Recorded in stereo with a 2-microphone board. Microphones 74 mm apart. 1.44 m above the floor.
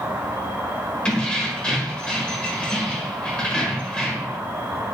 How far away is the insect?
About 1.3 m.